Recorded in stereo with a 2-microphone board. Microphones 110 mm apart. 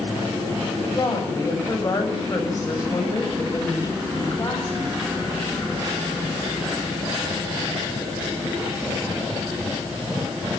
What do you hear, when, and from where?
0.9 s a woman speaking: 35° left (ahead or behind), 7.5 m